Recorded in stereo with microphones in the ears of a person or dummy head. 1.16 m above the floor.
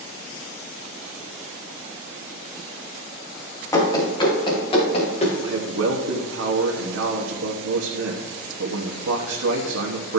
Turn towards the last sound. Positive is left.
turn(degrees=-85)